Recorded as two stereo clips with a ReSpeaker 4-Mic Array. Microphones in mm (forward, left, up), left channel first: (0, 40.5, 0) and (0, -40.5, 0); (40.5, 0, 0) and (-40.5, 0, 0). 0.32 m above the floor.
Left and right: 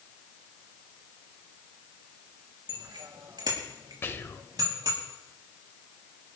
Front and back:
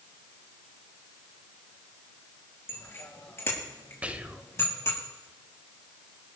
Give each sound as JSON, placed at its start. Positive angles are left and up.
{"t": 2.7, "sound": "a bicycle bell", "azimuth_deg": -65, "distance_m": 4.0}
{"t": 4.0, "sound": "whispering", "azimuth_deg": 120, "distance_m": 1.0}